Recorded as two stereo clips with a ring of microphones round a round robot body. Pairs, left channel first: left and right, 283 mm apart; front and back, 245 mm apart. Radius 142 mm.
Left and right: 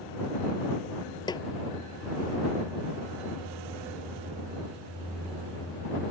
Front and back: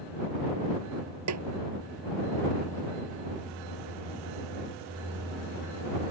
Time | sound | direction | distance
1.3 | a snare drum | 165° left | ?